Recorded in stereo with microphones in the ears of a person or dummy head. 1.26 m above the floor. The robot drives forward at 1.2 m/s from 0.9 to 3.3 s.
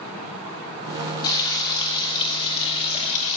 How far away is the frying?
About 6 m.